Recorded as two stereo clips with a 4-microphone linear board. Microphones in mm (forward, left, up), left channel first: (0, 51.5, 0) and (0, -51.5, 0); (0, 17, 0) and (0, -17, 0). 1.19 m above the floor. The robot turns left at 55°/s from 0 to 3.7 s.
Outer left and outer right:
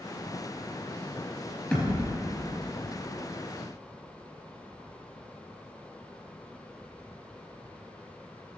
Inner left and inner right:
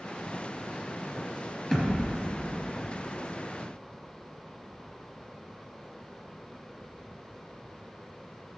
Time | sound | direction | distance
1.7 | a thud | 15° left (ahead or behind) | 3.5 m